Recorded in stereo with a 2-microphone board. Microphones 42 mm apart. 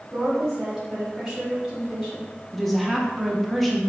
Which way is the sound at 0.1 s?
10° right (ahead or behind).